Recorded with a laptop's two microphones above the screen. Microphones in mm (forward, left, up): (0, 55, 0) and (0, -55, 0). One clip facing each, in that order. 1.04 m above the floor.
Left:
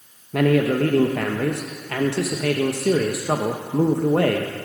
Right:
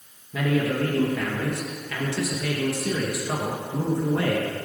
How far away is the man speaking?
About 0.8 m.